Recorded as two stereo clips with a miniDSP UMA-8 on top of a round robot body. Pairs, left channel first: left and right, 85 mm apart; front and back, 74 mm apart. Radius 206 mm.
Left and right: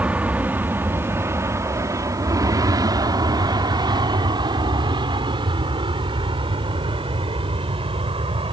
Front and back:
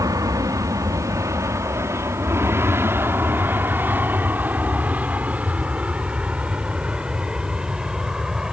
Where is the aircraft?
160° right; by 8.5 s 100° right.